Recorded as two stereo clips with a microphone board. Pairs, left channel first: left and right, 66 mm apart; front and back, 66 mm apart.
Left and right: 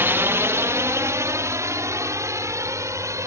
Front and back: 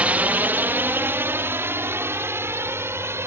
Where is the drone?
120° right; by 3.3 s 130° right.